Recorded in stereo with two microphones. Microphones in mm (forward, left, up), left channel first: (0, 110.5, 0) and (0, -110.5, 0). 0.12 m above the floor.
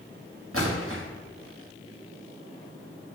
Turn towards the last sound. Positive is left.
turn(degrees=-80)